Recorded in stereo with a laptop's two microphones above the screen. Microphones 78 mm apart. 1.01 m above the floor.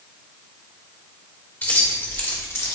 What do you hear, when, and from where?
1.6 s keys jangling: 25° left (ahead or behind), 1.5 m; by 2.7 s 35° left (ahead or behind), 0.9 m